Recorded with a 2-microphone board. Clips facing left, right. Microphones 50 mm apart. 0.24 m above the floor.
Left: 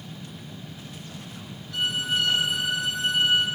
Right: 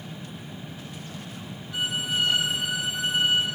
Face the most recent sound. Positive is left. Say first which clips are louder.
# left 2 dB
turn(degrees=-20)  # may be behind; listen again after turning